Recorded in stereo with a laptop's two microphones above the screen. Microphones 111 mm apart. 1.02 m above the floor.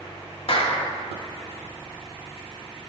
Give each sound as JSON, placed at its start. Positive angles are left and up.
{"t": 0.5, "sound": "a clap", "side_deg": 55, "distance_m": 1.2}